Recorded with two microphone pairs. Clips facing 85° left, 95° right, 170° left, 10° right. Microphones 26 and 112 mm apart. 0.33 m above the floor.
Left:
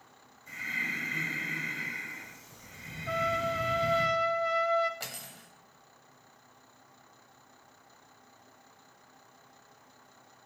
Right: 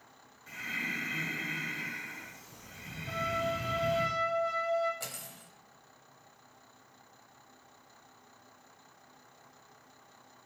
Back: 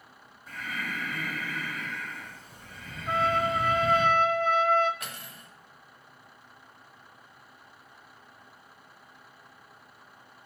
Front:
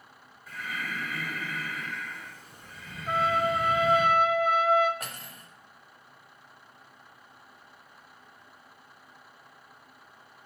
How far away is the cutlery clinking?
About 0.8 m.